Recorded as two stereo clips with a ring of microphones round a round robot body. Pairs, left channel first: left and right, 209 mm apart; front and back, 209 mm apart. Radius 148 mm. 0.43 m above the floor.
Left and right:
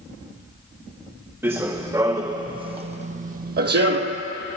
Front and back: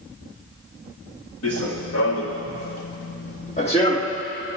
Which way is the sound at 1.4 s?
10° right.